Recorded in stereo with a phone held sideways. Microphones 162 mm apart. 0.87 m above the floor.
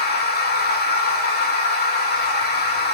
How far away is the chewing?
I don't hear chewing.